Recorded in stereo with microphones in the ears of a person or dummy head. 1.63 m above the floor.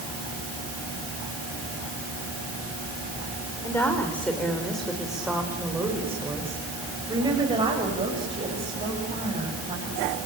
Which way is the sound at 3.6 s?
15° left (ahead or behind).